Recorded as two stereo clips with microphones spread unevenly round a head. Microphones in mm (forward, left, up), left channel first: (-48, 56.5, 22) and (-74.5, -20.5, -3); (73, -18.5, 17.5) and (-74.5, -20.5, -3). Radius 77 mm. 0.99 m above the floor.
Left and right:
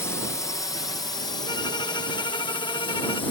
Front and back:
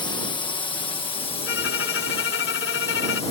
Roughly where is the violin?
Ahead.